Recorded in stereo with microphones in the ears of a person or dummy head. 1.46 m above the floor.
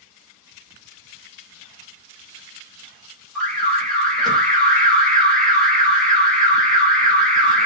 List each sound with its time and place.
3.4 s an alarm: 5° left (ahead or behind), 1.0 m